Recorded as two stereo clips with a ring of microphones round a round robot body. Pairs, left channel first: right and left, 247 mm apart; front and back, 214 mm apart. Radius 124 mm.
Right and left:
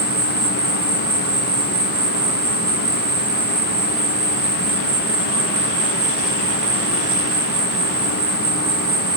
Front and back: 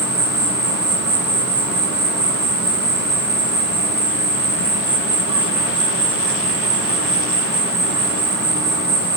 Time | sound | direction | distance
0.0 | an insect | 105° left | 4 m